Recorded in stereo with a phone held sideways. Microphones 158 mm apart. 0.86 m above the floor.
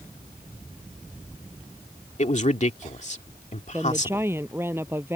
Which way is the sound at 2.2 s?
50° left (ahead or behind).